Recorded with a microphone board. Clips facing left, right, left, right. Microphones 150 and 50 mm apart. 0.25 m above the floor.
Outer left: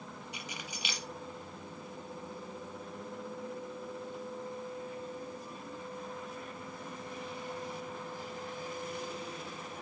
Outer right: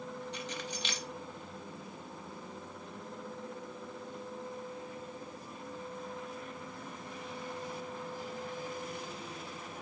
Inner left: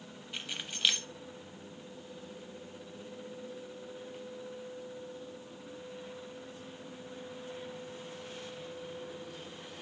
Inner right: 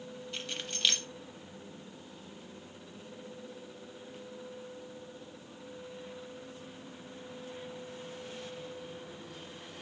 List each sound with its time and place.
0.3 s keys jangling: 10° left (ahead or behind), 0.7 m